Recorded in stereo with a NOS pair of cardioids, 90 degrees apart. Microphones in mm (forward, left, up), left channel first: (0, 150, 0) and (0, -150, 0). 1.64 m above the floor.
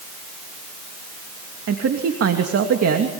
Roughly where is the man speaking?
Ahead right.